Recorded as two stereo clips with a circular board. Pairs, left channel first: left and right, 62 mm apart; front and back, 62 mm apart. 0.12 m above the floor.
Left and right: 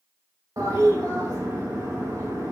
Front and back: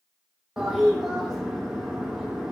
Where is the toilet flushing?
95° right, 4 m.